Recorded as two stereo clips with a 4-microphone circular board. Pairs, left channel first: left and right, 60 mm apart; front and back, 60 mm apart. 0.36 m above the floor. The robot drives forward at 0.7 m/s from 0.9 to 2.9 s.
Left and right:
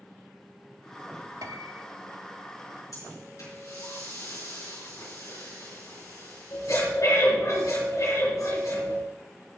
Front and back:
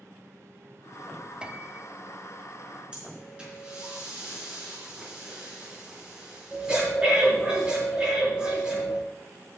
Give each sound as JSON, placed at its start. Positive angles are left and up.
{"t": 1.4, "sound": "a piano", "azimuth_deg": -105, "distance_m": 0.6}
{"t": 2.9, "sound": "breathing", "azimuth_deg": 105, "distance_m": 5.5}